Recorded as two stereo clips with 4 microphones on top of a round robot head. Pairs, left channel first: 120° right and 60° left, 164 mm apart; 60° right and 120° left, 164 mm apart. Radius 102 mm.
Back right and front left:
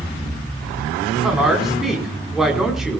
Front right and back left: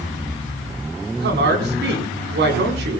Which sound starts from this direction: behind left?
A woman speaking, at 1.2 s.